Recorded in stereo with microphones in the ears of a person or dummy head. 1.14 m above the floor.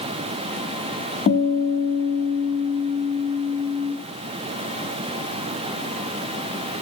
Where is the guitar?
35° left (ahead or behind), 0.8 m.